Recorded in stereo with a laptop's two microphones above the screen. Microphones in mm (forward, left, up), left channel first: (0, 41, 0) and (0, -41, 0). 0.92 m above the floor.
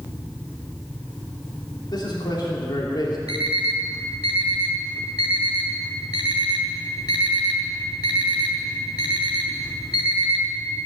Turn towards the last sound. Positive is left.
turn(degrees=60)  # may be behind; listen again after turning